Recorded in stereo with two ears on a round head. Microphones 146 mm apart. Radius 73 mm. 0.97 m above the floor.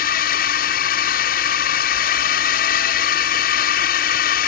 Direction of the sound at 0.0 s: 60° left (ahead or behind).